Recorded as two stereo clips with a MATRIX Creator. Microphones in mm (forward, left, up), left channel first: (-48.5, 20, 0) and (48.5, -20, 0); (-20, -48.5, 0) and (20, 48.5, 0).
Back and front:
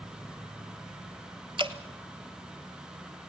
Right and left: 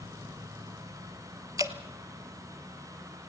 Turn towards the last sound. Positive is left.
turn(degrees=15)